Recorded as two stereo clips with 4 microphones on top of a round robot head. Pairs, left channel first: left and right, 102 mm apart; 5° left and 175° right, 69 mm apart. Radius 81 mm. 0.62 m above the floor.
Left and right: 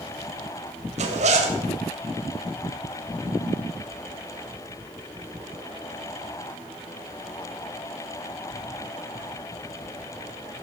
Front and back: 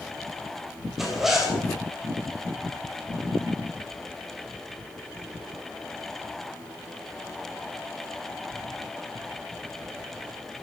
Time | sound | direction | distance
1.0 | a zipper | 90° right | 3 m